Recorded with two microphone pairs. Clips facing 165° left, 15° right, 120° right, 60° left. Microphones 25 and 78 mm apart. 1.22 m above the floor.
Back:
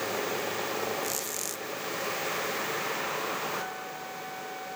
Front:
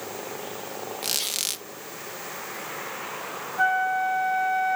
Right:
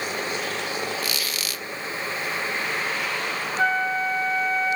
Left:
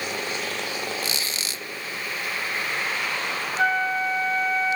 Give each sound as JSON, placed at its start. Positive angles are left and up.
{"t": 1.0, "sound": "a squeak", "azimuth_deg": 0}
{"t": 3.6, "sound": "a flute", "azimuth_deg": -30}